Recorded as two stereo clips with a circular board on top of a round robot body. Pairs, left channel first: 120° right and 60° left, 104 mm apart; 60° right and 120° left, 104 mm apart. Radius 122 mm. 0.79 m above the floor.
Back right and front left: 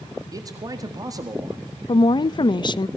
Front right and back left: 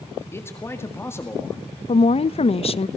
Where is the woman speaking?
80° right, 0.7 m.